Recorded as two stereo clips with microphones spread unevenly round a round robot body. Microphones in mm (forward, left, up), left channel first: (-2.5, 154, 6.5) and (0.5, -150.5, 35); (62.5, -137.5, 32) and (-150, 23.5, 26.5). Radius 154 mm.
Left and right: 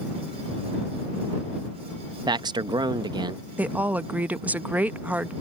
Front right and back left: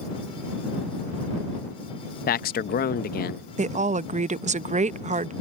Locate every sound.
2.3 s a man speaking: 15° right
3.6 s a woman speaking: straight behind